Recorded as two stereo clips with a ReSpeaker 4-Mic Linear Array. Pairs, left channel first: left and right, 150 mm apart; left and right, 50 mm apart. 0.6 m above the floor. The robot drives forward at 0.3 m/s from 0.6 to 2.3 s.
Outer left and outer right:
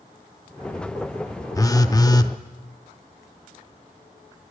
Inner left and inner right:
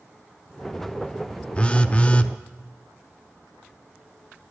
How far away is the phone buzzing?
About 0.6 m.